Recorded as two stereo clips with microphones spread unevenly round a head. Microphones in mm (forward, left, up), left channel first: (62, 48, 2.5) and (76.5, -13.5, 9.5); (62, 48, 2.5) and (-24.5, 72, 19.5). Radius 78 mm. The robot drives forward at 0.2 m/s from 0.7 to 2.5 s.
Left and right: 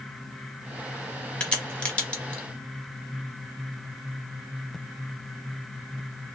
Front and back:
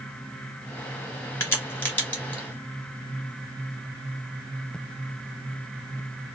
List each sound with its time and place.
1.4 s a crack: 35° left, 1.2 m; by 2.4 s 60° left, 1.1 m